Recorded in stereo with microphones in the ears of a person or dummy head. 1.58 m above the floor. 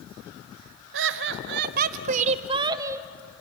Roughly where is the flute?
No flute in this recording.